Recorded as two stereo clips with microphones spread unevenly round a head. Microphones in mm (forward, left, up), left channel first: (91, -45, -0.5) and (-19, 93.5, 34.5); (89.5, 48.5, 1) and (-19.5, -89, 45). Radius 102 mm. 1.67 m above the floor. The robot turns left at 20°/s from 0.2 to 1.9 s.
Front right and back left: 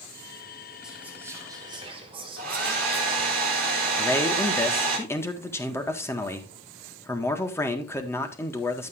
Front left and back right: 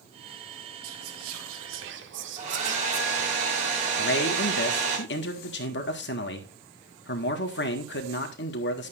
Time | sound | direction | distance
0.8 | whispering | 145° right | 1.6 m
2.4 | a hair dryer | 175° left | 3.5 m
4.0 | a man speaking | 25° left | 1.8 m